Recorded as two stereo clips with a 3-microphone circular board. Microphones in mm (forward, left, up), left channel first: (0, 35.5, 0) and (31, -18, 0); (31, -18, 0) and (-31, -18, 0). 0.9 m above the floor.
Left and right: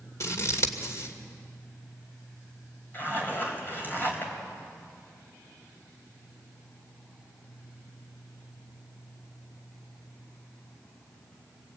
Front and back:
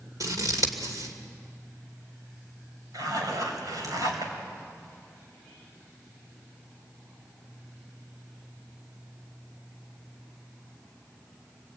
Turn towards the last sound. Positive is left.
turn(degrees=175)